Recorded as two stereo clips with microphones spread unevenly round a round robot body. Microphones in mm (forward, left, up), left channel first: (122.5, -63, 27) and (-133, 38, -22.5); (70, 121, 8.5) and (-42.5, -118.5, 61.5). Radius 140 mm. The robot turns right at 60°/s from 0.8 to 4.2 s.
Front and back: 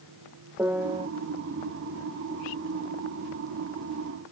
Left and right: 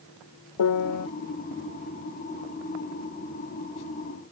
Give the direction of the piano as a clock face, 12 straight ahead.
9 o'clock.